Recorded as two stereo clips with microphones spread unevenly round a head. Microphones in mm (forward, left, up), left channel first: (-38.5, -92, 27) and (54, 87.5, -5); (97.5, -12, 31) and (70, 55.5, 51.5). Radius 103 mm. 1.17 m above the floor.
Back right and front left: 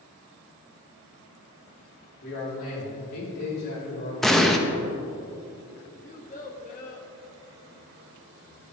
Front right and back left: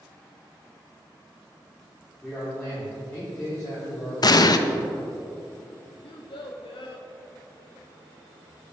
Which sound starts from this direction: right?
A child speaking, at 6.0 s.